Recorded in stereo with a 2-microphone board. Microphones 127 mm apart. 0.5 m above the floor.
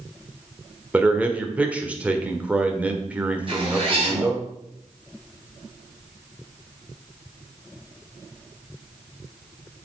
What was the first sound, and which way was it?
A man speaking, 10° right (ahead or behind).